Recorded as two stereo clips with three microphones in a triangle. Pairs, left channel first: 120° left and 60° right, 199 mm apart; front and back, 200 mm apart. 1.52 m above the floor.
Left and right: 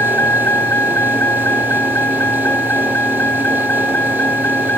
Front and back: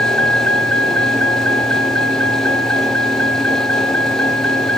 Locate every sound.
0.0 s a vehicle: 160° right